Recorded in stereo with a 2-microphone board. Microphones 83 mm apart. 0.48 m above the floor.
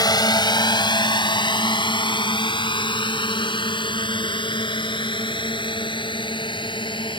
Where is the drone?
55° left (ahead or behind); by 7.2 s 75° left (ahead or behind).